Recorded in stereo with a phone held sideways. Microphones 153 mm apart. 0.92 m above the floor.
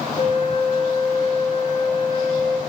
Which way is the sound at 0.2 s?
40° left (ahead or behind).